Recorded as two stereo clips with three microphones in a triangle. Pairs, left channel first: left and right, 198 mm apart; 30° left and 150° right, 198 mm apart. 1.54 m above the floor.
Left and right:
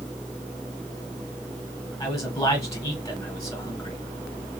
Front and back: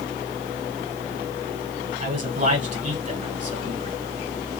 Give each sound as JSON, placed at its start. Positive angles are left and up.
{"t": 2.0, "sound": "a man speaking", "azimuth_deg": 165, "distance_m": 1.5}